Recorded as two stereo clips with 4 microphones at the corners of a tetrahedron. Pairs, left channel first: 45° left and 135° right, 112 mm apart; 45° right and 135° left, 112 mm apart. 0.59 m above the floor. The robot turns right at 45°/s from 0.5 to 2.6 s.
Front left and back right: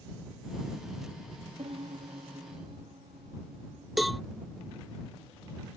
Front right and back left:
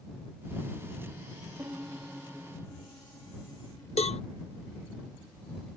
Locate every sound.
1.6 s a piano: 160° right; by 3.9 s 115° right
4.0 s a cowbell: 45° right